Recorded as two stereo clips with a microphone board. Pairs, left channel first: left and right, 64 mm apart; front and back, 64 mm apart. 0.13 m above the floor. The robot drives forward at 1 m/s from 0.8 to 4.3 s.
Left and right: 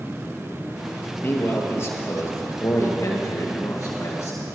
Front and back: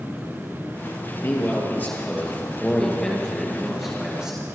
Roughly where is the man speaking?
Ahead left.